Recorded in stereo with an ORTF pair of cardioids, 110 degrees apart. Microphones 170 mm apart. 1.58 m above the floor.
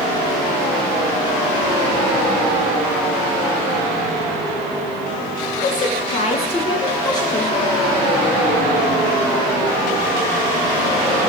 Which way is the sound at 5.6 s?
55° left.